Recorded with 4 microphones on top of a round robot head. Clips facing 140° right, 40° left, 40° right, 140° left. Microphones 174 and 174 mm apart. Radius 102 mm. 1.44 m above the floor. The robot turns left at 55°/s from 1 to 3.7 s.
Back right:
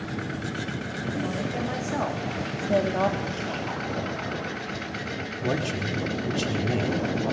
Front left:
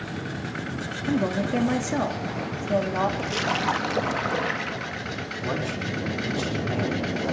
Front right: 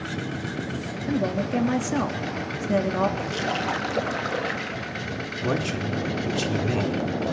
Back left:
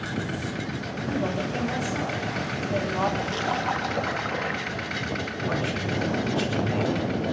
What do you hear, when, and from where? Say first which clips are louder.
1.1 s a woman speaking: front left 6 dB, front right 3 dB; 25° left, 3.5 m; by 3.1 s 85° right, 3.5 m
3.2 s a splash: front left 3 dB, even; 45° left, 1.7 m; by 5.1 s 15° left, 1.7 m
5.4 s a man speaking: back right 2 dB, front right 3 dB; 80° right, 4.5 m